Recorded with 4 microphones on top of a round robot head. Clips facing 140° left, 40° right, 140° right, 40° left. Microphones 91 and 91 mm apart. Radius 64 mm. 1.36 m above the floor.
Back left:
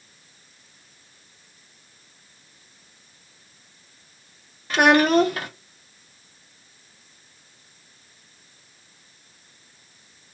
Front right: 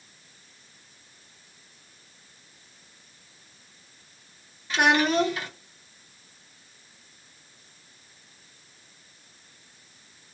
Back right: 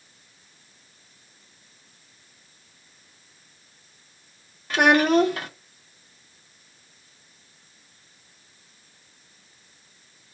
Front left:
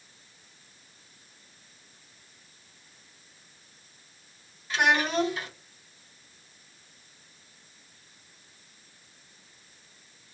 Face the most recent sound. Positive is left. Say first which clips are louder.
# back left 5 dB, back right 7 dB
turn(degrees=180)